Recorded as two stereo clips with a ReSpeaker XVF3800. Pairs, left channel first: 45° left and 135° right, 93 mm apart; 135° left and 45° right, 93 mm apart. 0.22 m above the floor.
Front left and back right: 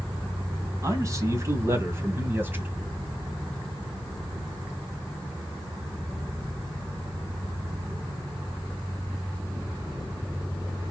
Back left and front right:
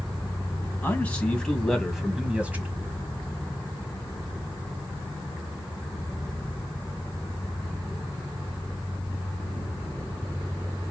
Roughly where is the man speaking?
Behind.